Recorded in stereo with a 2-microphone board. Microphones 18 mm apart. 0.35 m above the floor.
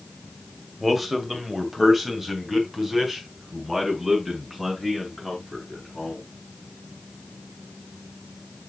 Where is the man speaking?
Centre (ahead or behind), 1.6 m; by 6.2 s 15° right (ahead or behind), 5.5 m.